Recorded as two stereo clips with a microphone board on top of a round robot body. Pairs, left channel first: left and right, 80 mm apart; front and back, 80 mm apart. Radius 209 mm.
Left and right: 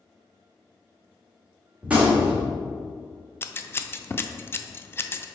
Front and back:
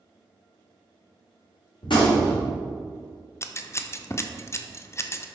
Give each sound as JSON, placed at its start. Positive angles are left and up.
{"t": 1.8, "sound": "a gunshot", "azimuth_deg": -15, "distance_m": 1.4}
{"t": 3.4, "sound": "scissors", "azimuth_deg": 40, "distance_m": 0.5}